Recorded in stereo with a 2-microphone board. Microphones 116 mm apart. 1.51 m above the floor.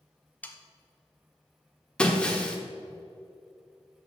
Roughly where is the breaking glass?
Centre.